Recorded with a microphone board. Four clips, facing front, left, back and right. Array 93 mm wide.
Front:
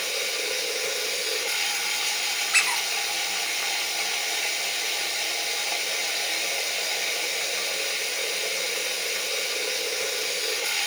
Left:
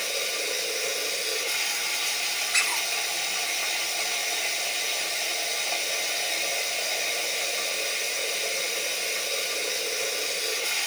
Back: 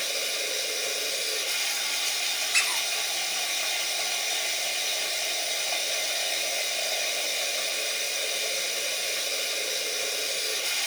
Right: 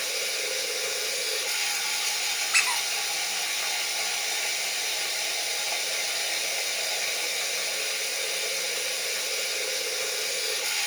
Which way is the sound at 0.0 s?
5° right.